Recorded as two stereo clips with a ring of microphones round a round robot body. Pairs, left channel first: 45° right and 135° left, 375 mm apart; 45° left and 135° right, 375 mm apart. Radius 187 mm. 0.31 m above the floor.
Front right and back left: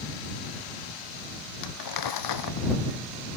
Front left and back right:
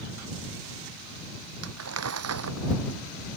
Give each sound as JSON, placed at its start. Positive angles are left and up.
{"t": 1.6, "sound": "crumpling", "azimuth_deg": -80}